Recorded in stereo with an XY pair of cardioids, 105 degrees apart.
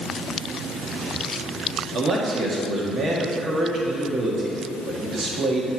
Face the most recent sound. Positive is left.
turn(degrees=-45)